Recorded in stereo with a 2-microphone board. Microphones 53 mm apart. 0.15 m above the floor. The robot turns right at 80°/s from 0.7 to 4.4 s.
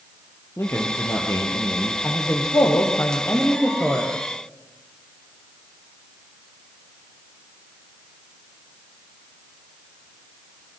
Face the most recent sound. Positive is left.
turn(degrees=-120)